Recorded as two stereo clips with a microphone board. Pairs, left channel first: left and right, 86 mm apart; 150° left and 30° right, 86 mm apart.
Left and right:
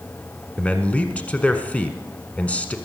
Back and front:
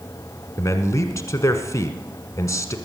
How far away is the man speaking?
About 1.2 m.